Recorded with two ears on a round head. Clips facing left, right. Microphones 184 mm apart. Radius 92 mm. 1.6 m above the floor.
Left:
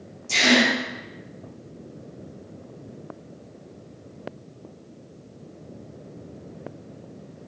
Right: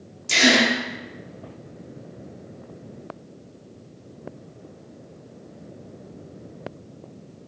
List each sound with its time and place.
0.3 s a gasp: 70° right (ahead or behind), 0.7 m